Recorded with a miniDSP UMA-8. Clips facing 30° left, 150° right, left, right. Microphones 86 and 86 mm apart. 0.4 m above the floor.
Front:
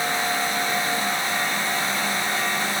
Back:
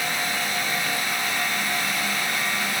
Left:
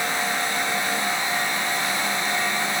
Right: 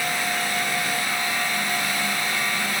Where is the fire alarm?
I don't hear a fire alarm.